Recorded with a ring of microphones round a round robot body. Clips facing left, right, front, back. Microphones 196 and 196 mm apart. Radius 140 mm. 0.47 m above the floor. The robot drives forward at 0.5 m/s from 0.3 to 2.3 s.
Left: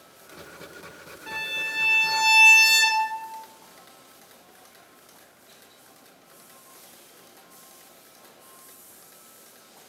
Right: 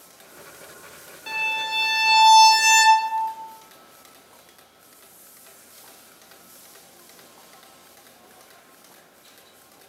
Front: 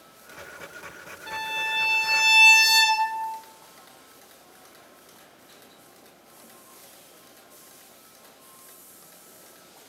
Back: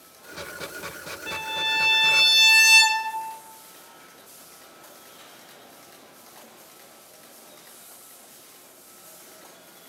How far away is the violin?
About 0.7 m.